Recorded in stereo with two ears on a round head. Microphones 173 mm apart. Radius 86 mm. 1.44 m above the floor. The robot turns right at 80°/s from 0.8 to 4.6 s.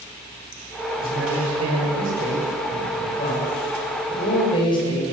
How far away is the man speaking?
About 7.5 m.